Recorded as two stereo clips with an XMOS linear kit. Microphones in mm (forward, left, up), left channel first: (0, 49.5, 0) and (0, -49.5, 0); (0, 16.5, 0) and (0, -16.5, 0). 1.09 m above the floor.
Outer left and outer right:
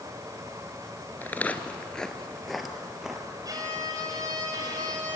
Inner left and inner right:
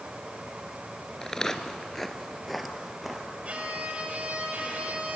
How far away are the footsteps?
About 1.1 m.